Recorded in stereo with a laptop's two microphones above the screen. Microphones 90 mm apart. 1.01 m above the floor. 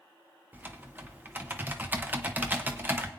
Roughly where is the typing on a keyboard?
Right.